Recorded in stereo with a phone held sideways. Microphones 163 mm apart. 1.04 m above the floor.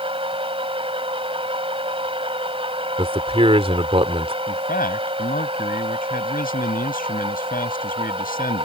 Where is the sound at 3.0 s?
40° right (ahead or behind).